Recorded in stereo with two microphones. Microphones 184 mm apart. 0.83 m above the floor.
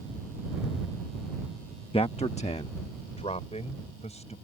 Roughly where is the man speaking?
Left.